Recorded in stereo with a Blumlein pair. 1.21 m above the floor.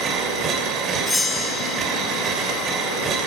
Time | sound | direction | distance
0.0 | a machine running | 25° right | 2.5 m
1.1 | a bell | 5° left | 2.5 m